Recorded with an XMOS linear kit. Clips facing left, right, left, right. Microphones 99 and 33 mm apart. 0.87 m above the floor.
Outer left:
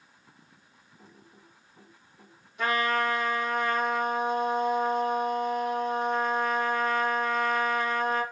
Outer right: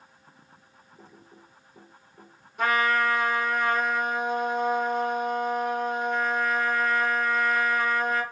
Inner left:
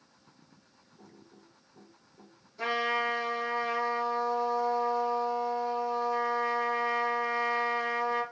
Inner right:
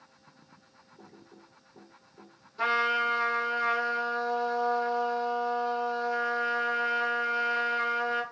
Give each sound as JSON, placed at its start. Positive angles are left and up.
{"t": 1.0, "sound": "typing on a keyboard", "side_deg": -80, "distance_m": 1.6}
{"t": 2.6, "sound": "a trumpet", "side_deg": -50, "distance_m": 2.5}